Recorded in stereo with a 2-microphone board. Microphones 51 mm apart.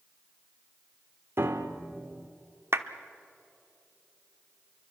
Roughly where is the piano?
Right.